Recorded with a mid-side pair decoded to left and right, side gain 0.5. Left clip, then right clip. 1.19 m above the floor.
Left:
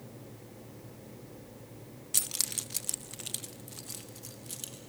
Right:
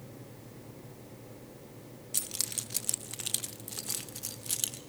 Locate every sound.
2.1 s keys jangling: 30° left, 0.6 m; by 4.8 s 55° right, 1.5 m